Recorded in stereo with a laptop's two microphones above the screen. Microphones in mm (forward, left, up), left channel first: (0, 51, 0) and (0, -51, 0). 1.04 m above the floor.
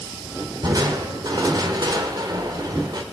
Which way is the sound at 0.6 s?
40° right (ahead or behind).